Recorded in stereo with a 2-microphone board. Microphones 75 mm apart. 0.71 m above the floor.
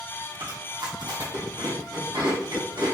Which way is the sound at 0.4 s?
70° right (ahead or behind).